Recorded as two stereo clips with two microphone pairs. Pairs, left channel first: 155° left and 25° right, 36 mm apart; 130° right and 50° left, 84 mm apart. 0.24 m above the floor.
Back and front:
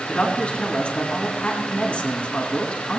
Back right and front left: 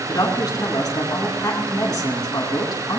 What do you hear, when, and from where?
0.1 s a woman speaking: 160° right, 2.5 m